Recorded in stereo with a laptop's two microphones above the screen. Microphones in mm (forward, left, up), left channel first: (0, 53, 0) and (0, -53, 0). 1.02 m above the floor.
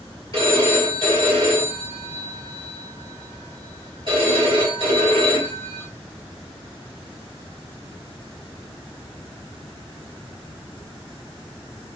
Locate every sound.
0.3 s a phone ringing: 55° right (ahead or behind), 1.5 m